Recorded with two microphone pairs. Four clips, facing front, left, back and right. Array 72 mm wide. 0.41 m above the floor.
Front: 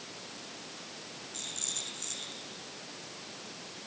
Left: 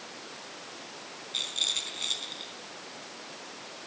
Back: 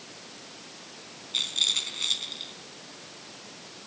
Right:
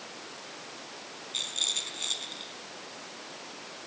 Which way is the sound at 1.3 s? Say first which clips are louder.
Left 1 dB, back 8 dB; 155° left.